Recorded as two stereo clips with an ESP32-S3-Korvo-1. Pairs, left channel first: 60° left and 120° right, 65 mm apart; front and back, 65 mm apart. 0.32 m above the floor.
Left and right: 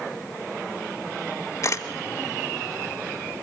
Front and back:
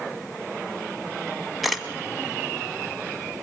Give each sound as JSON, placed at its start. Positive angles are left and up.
{"t": 1.6, "sound": "a camera shutter", "azimuth_deg": 90, "distance_m": 1.4}